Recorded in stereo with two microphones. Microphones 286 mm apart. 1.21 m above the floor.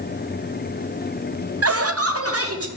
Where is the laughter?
55° right (ahead or behind), 0.5 m; by 2.7 s 50° right (ahead or behind), 1.5 m.